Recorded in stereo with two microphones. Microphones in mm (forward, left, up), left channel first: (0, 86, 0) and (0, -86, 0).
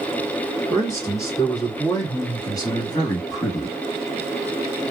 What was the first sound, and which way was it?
A man speaking, 20° left (ahead or behind).